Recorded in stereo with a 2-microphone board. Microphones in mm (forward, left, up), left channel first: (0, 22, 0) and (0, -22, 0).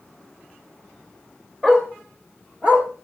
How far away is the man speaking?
No man speaking in this recording.